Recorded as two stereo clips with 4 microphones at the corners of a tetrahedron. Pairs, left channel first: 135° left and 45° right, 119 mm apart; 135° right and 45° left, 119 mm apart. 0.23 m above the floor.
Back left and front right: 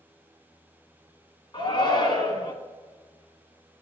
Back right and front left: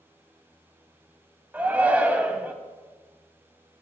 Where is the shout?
115° left, 1.6 m.